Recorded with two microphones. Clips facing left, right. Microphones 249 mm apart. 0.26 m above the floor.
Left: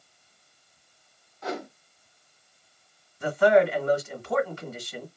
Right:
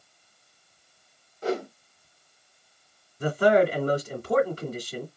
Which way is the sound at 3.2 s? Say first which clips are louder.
Even; 40° right (ahead or behind).